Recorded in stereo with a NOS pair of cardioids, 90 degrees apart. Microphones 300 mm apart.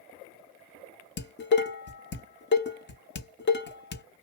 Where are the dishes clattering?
35° left, 0.8 m.